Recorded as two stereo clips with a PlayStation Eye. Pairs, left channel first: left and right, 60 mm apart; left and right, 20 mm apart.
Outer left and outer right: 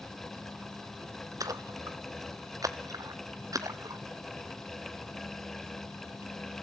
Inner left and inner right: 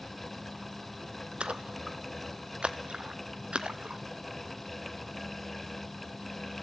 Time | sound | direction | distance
1.4 | a splash | 80° right | 1.2 m